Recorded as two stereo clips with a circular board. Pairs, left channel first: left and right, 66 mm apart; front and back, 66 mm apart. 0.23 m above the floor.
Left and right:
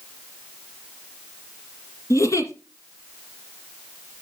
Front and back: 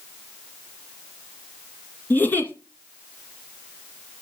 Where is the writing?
I don't hear writing.